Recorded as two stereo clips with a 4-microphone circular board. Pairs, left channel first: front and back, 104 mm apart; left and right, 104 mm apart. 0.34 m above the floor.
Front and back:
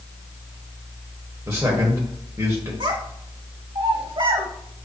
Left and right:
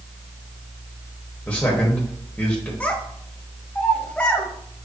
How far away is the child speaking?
About 1.2 m.